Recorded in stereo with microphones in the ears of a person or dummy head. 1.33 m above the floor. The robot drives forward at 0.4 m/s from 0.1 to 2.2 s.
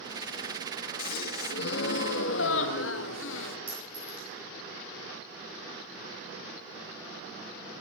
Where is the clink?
5° right (ahead or behind), 4.5 m.